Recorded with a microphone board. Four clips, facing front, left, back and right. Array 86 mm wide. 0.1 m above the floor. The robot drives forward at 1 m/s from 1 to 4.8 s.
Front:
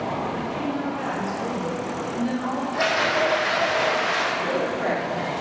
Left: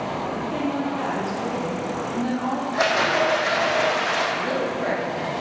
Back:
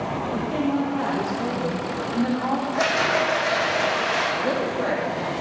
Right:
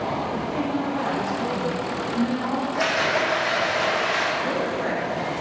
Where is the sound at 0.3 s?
140° left, 3.5 m; by 2.6 s 150° left, 5 m.